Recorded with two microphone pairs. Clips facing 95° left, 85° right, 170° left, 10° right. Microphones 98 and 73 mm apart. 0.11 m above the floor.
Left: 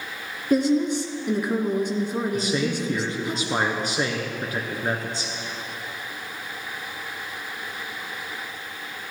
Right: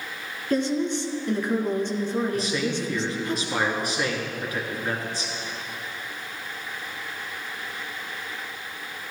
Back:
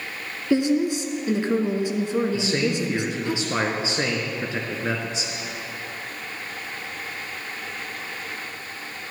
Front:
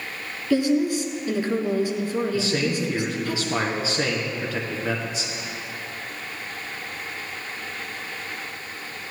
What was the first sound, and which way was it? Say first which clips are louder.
A woman speaking: left 4 dB, even; 155° left.